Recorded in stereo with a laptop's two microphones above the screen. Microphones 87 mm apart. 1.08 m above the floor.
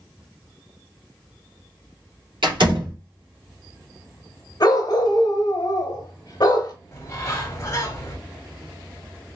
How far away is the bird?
About 1.0 m.